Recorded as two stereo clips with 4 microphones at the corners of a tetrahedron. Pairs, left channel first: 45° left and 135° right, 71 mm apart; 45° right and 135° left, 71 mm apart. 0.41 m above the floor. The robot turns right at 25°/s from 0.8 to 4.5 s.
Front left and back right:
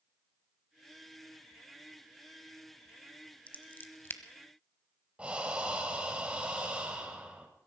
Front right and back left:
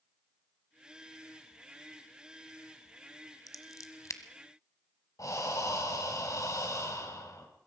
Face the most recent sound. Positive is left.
turn(degrees=-65)